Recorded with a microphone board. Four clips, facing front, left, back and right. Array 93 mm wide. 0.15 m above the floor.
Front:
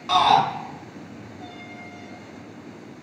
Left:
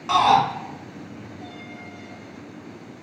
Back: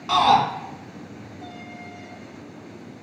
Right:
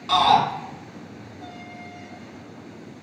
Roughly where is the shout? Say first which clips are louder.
Left 1 dB, even; left.